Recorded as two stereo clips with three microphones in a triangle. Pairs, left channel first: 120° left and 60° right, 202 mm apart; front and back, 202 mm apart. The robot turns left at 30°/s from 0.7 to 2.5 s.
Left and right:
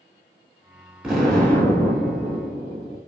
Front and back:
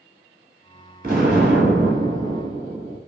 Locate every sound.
1.0 s an explosion: 145° right, 1.0 m; by 3.0 s 170° left, 1.0 m